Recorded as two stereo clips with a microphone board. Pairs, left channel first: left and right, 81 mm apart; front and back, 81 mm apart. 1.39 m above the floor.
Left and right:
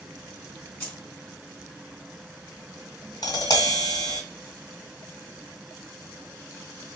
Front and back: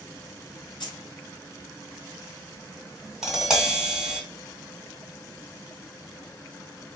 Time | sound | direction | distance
0.8 | keys jangling | 20° left | 2 m
3.2 | tapping | 100° left | 1.8 m